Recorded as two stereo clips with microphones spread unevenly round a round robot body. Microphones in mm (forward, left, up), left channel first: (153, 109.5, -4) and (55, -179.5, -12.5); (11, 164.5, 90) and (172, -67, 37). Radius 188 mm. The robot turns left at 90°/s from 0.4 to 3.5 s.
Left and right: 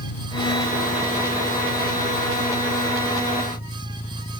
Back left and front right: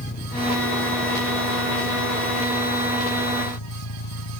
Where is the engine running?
65° left; by 4.4 s 145° left.